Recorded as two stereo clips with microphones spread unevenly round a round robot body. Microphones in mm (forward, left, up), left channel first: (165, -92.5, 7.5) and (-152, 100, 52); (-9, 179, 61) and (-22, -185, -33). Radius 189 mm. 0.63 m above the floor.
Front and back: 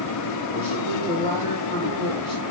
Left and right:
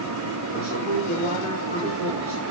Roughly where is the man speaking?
Ahead.